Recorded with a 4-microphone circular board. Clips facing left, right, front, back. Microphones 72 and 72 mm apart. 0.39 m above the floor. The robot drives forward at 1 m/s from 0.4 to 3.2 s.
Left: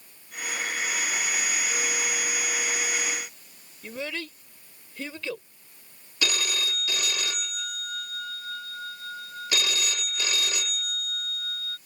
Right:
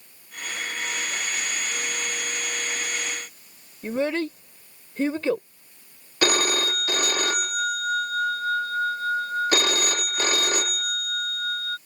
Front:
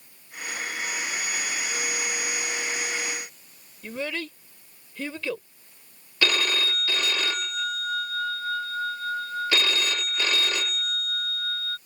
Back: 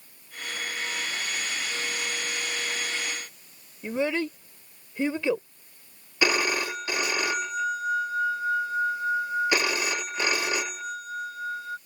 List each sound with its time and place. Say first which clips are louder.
3.8 s a child speaking: right 10 dB, back 5 dB; 120° right
6.2 s a phone ringing: right 7 dB, back 1 dB; 110° right